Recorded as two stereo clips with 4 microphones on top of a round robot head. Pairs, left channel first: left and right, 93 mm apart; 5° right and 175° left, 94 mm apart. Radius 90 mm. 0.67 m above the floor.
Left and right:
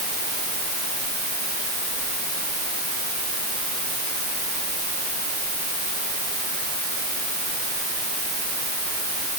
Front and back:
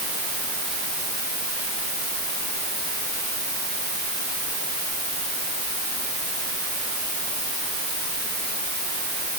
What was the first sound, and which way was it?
Only background noise.